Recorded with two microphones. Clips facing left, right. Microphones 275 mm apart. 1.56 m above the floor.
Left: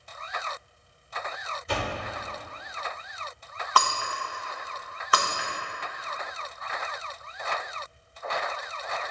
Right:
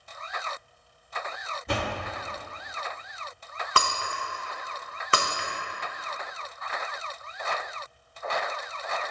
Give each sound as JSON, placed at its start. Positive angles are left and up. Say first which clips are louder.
{"t": 1.7, "sound": "a door slam", "louder": "right 1 dB", "side_deg": -65, "distance_m": 2.5}
{"t": 3.8, "sound": "breaking glass", "louder": "left 1 dB", "side_deg": -30, "distance_m": 0.9}